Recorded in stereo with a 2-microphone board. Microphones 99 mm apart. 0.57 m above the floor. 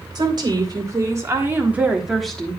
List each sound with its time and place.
0.1 s a woman speaking: 45° right (ahead or behind), 2.0 m; by 2.6 s 15° left (ahead or behind), 1.2 m